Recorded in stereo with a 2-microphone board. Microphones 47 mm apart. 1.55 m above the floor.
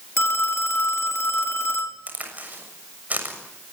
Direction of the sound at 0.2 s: 65° left (ahead or behind).